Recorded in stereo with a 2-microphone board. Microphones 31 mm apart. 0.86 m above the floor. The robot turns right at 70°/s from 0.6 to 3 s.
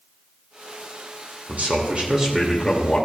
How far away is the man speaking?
About 1.9 m.